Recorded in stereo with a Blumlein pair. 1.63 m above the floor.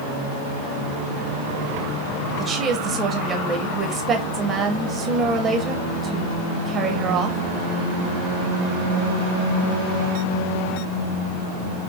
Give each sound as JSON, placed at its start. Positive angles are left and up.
{"t": 2.4, "sound": "a woman speaking", "azimuth_deg": -20, "distance_m": 1.4}